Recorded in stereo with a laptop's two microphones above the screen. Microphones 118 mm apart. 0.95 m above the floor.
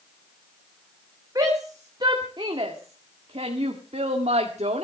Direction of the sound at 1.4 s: 35° right (ahead or behind).